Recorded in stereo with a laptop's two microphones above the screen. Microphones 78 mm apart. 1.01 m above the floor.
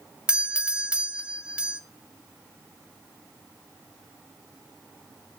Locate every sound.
0.3 s a doorbell: 10° right (ahead or behind), 0.6 m